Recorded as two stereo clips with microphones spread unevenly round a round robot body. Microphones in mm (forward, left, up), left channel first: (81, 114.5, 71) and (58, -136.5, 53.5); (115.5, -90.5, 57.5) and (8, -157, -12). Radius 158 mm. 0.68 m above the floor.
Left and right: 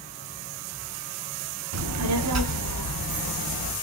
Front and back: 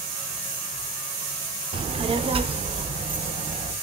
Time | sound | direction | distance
1.7 | a child speaking | 120° right | 1.1 m